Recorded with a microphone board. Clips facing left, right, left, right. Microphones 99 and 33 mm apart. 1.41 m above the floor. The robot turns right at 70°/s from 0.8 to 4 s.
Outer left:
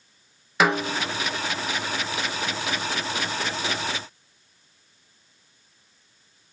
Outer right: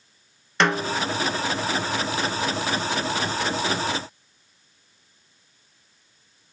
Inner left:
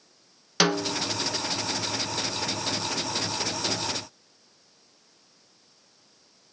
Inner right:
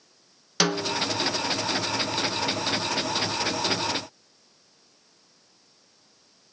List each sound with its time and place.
0.6 s a snare drum: 5° left (ahead or behind), 0.6 m; by 1.0 s 5° right (ahead or behind), 0.6 m